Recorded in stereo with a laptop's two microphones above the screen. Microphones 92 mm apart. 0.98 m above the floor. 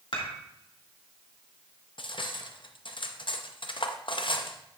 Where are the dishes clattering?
65° left (ahead or behind), 1.7 m.